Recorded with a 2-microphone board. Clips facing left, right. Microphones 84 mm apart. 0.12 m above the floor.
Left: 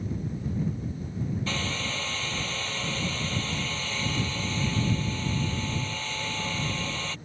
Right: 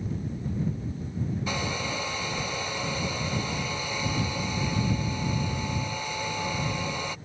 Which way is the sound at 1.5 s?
15° right (ahead or behind).